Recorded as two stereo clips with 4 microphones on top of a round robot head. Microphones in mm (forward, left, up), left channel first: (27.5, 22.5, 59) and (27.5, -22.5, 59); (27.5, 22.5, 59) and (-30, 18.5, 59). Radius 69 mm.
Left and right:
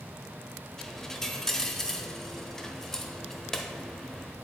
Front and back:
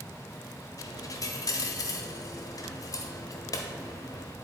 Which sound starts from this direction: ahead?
A dropped coin, at 0.8 s.